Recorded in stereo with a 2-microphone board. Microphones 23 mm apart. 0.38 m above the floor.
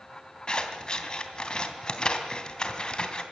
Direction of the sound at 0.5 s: 35° left (ahead or behind).